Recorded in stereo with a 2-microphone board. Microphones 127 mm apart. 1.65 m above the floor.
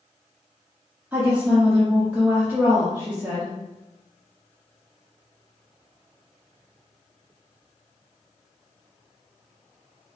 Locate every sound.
1.1 s a woman speaking: 10° right (ahead or behind), 0.9 m